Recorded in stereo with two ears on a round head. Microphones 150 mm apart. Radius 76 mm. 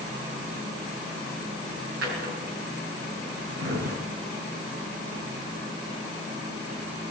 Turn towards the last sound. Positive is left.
turn(degrees=-70)  # may be behind; listen again after turning